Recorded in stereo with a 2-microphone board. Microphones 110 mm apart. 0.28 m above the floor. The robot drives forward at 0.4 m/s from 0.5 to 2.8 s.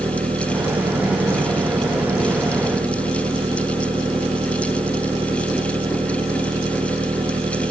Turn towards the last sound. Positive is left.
turn(degrees=-55)  # may be behind; listen again after turning